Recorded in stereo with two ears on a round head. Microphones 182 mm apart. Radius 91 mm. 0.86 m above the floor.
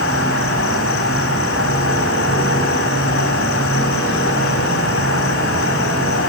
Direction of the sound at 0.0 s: 70° left (ahead or behind).